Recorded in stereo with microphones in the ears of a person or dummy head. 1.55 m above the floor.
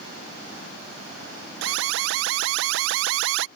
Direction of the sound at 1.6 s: 70° right (ahead or behind).